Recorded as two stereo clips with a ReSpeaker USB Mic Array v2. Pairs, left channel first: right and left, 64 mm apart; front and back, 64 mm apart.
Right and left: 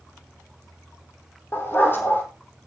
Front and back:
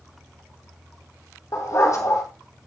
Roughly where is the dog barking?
Ahead right.